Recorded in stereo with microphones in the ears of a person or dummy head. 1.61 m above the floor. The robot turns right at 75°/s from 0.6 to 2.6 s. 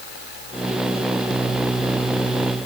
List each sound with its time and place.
Only background noise.